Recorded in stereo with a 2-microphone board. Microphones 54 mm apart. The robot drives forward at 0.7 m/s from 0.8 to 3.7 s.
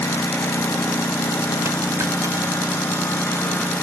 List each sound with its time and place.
0.0 s a lawn mower: 65° left (ahead or behind); by 3.8 s 50° left (ahead or behind)
1.6 s a dropped coin: 80° right; by 3.3 s 85° right